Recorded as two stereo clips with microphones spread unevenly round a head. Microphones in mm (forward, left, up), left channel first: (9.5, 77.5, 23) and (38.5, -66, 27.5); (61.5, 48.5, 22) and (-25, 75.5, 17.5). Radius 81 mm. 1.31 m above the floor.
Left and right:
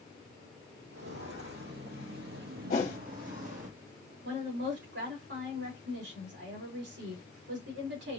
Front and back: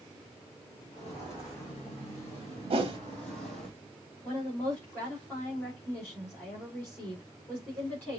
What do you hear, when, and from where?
0.9 s footsteps: 80° right, 3 m; by 3.7 s 105° right, 1.8 m
2.7 s a whoosh: 150° left, 1.6 m
4.2 s a woman speaking: 95° right, 3.5 m